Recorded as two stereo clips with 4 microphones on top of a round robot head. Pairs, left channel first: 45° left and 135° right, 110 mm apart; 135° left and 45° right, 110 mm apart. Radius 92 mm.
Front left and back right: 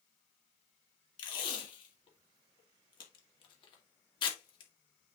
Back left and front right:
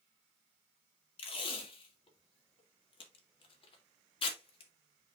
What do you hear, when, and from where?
1.2 s tape being pulled: 95° left, 2 m